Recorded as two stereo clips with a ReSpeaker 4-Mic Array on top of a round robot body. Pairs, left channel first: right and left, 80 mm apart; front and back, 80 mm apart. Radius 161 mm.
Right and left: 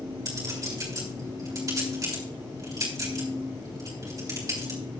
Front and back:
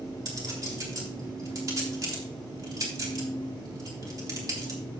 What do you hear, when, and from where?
0.2 s a clink: 135° left, 3.5 m